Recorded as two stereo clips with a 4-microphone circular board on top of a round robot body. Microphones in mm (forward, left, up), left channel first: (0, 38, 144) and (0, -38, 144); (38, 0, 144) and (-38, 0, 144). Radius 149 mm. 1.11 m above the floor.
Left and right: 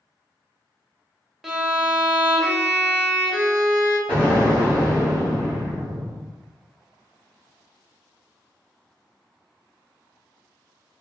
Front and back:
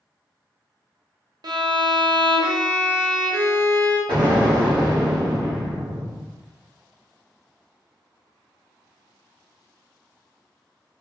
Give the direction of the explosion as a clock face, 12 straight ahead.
7 o'clock.